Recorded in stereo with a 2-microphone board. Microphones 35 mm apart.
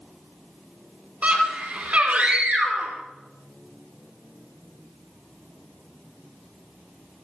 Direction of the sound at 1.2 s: 45° right (ahead or behind).